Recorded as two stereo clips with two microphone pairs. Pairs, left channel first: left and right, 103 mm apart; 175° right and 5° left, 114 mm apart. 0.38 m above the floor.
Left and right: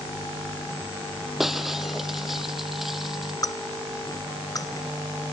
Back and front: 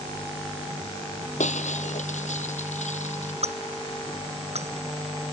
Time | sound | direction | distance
1.4 | breaking glass | straight behind | ?
3.4 | breaking glass | 35° left | ?